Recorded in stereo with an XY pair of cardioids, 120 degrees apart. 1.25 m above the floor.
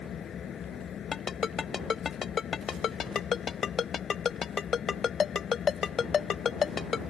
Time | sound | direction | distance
0.0 | an engine running | 50° left | ?
1.1 | a ringtone | 40° left | ?